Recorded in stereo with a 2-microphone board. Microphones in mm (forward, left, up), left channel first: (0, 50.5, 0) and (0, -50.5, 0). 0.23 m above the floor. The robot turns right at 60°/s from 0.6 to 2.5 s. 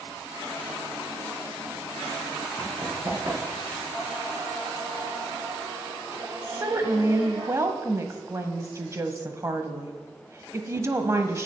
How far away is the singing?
About 6 m.